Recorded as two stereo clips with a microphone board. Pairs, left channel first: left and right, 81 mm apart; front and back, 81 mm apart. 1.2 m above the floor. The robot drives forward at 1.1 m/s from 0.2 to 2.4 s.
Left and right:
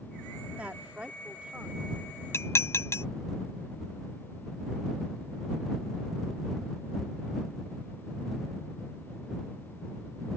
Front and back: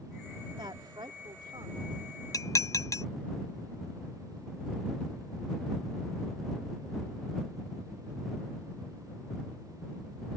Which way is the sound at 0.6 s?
165° right.